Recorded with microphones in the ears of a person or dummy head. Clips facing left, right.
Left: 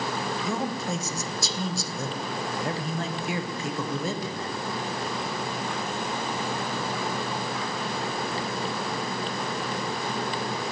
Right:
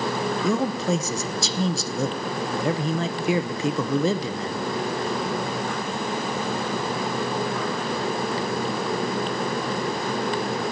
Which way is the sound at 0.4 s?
60° right (ahead or behind).